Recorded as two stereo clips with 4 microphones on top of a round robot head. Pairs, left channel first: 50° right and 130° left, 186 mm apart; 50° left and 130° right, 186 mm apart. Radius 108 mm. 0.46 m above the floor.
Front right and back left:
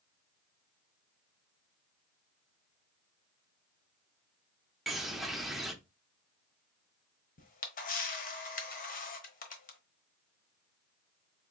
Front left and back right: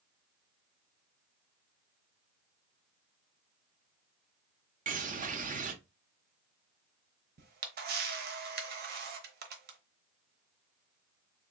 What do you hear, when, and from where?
4.9 s a bird: 140° right, 0.8 m
7.4 s a camera shutter: 95° right, 1.0 m